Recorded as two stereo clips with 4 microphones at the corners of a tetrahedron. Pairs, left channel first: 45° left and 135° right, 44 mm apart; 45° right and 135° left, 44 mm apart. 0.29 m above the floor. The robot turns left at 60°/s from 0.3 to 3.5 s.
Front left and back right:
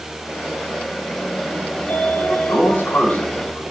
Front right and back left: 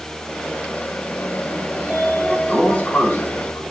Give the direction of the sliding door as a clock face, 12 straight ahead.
10 o'clock.